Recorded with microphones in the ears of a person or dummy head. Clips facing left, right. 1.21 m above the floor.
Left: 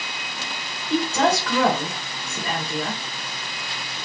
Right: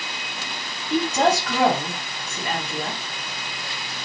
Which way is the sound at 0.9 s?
60° left (ahead or behind).